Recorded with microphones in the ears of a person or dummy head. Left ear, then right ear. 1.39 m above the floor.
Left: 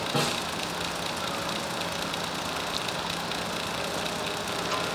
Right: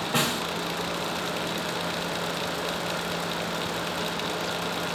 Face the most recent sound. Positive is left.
turn(degrees=-40)  # may be behind; listen again after turning